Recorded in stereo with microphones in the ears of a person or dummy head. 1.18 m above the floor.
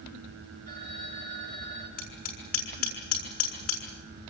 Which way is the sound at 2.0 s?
50° left (ahead or behind).